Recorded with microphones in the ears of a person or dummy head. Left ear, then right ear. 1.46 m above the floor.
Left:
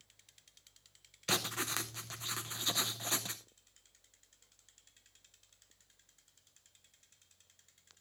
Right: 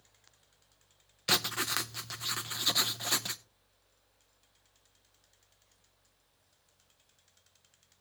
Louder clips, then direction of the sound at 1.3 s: Right 5 dB; 15° right (ahead or behind).